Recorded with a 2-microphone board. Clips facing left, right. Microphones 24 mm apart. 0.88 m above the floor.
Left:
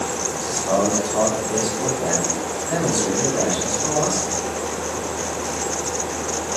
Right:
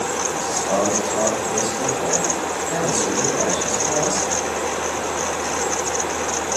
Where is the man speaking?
25° left (ahead or behind), 7 m.